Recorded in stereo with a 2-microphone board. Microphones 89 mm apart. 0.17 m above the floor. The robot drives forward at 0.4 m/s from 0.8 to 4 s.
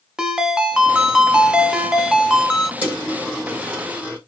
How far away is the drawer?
I don't hear a drawer.